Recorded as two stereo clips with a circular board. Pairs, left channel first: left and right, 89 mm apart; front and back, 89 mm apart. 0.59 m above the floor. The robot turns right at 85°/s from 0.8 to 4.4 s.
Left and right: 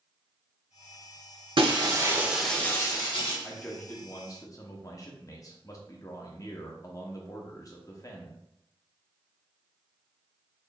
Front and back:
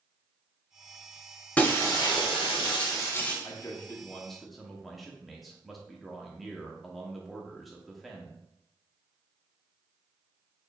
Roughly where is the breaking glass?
Right.